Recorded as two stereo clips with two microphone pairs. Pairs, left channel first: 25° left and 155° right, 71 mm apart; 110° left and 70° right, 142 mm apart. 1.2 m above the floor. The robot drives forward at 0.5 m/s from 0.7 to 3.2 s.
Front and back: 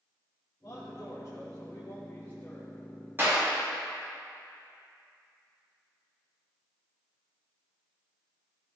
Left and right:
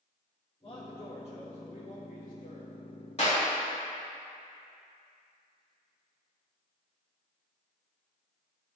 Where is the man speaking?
55° left, 1.4 m; by 2.7 s 105° left, 1.2 m.